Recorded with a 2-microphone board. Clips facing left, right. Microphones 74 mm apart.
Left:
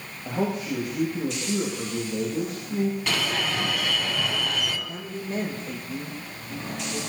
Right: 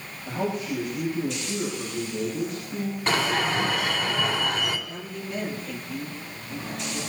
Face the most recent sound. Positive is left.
turn(degrees=35)  # may be behind; listen again after turning